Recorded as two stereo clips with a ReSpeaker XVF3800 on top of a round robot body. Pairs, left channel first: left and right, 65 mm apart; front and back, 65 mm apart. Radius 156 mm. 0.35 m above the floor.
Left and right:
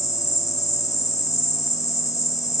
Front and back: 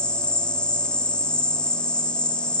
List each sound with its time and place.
0.0 s an insect: 70° left, 0.9 m